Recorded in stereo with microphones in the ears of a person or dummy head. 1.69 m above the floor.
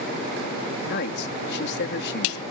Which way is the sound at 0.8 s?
60° left (ahead or behind).